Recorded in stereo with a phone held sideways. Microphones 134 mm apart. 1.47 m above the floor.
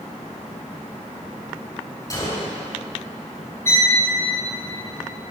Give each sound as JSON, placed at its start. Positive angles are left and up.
{"t": 2.1, "sound": "a gunshot", "side_deg": 30, "distance_m": 6.0}
{"t": 3.6, "sound": "a violin", "side_deg": -85, "distance_m": 5.0}